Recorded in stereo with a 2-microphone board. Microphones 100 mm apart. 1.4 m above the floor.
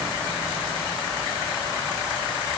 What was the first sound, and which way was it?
Only background noise.